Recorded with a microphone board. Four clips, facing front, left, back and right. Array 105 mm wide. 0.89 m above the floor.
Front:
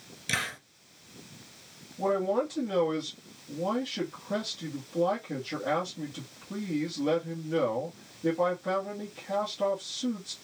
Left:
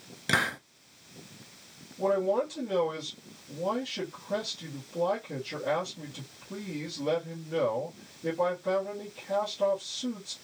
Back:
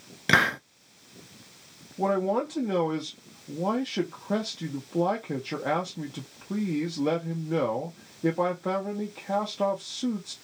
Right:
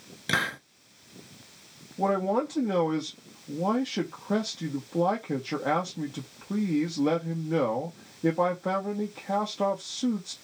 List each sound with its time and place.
0.3 s a hiss: 175° left, 0.5 m
2.0 s a man speaking: 130° right, 1.8 m